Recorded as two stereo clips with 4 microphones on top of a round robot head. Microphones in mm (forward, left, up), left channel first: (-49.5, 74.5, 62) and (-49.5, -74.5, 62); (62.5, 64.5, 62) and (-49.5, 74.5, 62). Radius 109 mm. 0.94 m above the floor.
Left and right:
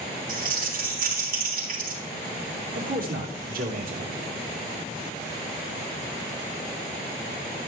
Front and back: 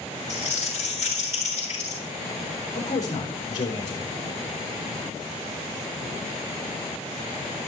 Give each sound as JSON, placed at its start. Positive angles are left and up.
{"t": 0.3, "sound": "crumpling", "azimuth_deg": -110, "distance_m": 6.0}
{"t": 2.7, "sound": "a man speaking", "azimuth_deg": -65, "distance_m": 2.5}